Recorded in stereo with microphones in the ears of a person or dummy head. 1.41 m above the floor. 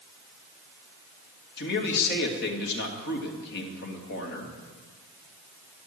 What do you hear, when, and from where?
1.6 s a man speaking: 55° left (ahead or behind), 2 m